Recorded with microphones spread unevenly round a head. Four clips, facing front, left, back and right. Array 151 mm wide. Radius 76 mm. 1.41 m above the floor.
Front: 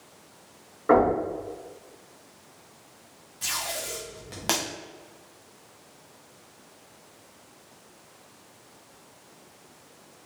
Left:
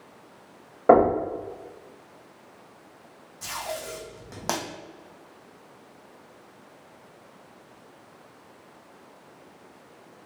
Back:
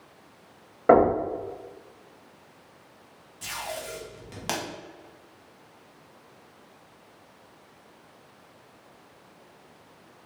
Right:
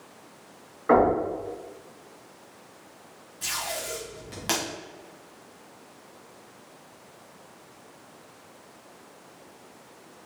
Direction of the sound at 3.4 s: 60° left.